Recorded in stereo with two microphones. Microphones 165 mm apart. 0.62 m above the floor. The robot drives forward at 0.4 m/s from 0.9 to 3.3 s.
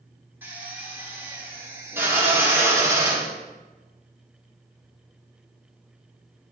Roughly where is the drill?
Centre.